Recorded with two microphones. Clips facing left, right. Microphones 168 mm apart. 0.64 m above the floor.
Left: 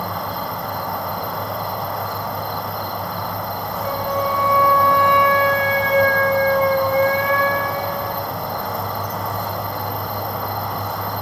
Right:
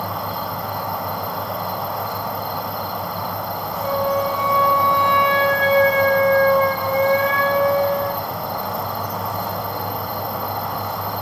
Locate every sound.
0.0 s an insect: centre (ahead or behind), 1.3 m
3.8 s a flute: 30° right (ahead or behind), 9 m